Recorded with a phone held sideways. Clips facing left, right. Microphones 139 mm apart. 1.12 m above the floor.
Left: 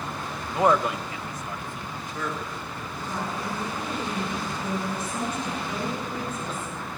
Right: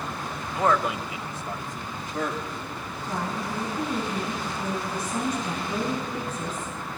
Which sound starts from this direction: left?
A man speaking, at 0.5 s.